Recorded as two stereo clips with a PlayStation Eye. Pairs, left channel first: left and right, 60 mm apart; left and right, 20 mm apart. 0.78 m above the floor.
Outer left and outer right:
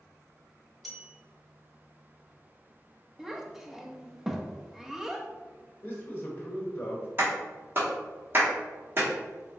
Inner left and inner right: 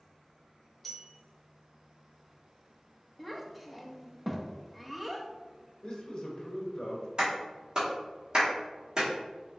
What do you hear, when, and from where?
0.8 s a bell: centre (ahead or behind), 0.8 m
3.2 s a child speaking: 5° right (ahead or behind), 0.5 m
5.8 s a man speaking: 30° left (ahead or behind), 1.2 m
7.2 s a clap: 40° right (ahead or behind), 1.5 m